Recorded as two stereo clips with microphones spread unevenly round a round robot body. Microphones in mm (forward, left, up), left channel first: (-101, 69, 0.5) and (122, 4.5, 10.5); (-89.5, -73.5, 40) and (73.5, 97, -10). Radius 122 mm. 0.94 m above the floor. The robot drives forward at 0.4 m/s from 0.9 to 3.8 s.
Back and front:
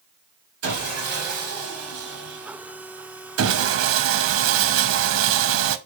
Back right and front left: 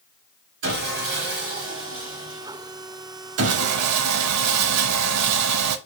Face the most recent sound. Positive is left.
turn(degrees=15)